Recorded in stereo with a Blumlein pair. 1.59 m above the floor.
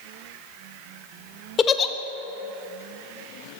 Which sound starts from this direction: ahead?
A giggle, at 1.6 s.